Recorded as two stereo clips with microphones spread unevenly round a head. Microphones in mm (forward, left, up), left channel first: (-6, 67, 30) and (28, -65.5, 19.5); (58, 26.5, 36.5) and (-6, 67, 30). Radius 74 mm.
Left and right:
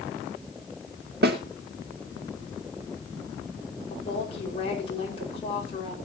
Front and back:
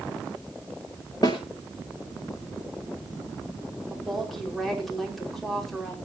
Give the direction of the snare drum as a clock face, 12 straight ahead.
3 o'clock.